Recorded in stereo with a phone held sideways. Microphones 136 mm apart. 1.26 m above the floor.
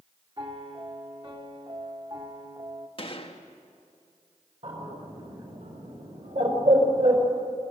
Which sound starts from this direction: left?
A gunshot, at 3.0 s.